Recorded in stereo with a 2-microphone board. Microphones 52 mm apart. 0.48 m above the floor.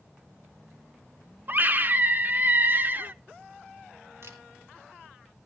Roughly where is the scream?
Right.